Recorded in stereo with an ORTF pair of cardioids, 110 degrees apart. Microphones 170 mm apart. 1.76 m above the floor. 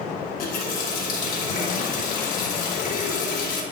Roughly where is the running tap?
Ahead left.